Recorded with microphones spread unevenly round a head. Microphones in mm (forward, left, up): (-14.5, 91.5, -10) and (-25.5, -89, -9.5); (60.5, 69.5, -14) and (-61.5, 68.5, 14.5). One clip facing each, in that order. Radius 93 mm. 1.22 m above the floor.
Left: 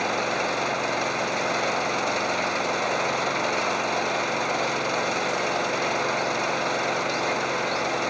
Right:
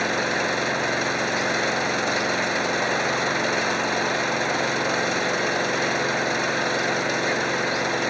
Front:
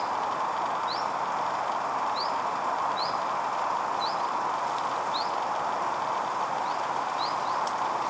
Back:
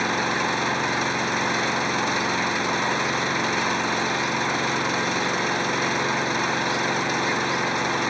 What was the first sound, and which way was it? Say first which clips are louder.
An engine running: right 1 dB, back 4 dB; 165° right.